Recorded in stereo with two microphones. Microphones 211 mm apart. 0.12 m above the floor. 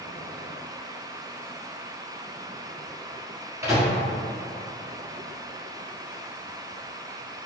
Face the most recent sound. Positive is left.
turn(degrees=-15)  # may be behind; listen again after turning